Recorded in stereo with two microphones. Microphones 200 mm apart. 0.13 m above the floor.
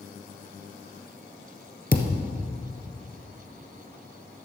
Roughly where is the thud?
Left.